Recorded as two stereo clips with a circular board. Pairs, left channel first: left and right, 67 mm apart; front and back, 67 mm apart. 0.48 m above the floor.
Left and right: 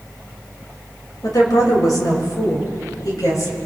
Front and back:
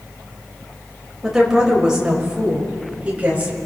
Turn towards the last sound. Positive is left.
turn(degrees=115)